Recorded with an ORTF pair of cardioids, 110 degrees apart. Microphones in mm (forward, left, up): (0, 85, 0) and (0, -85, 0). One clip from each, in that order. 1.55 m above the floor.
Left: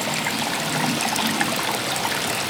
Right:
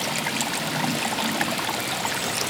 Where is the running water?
15° left, 1.1 m.